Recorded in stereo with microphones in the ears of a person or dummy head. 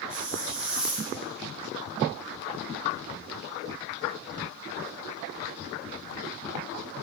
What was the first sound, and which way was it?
A hiss, centre (ahead or behind).